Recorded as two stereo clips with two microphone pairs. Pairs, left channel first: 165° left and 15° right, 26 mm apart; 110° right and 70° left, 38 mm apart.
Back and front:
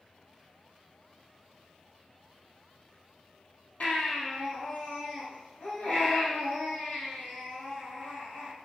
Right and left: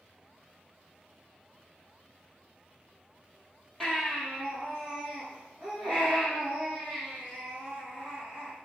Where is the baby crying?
170° left, 2.0 m.